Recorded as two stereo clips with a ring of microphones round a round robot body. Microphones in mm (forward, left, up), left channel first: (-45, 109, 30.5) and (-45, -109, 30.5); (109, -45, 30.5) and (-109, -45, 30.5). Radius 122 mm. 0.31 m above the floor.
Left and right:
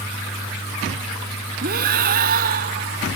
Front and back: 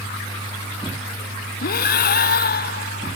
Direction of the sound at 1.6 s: 40° right.